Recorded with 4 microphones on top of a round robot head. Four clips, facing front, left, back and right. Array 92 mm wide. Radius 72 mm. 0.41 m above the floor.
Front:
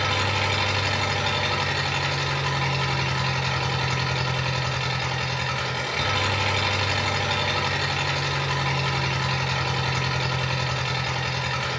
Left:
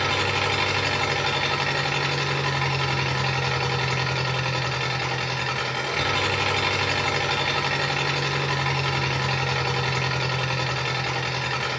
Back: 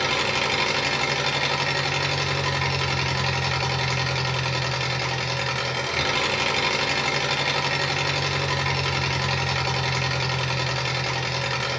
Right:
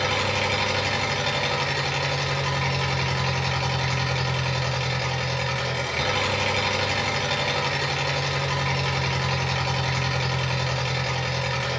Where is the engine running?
140° left, 1.0 m.